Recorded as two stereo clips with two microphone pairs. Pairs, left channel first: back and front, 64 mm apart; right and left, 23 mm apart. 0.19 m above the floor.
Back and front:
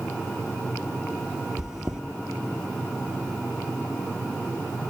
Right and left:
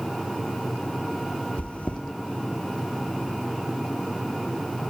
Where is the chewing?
85° right, 0.9 m.